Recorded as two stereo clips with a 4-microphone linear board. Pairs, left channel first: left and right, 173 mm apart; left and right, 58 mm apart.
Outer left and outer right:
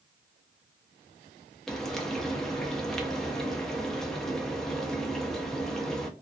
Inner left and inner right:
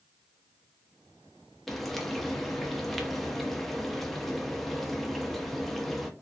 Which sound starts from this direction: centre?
Frying, at 1.7 s.